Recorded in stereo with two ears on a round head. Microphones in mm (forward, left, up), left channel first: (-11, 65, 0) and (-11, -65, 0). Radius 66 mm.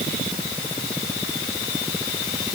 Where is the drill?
No drill in this recording.